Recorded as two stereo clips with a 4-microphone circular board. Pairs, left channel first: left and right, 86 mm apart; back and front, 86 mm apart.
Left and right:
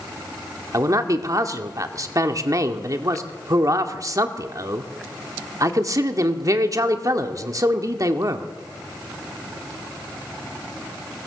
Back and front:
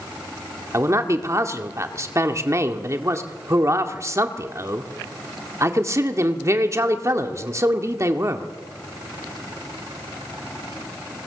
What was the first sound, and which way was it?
A man speaking, 50° right.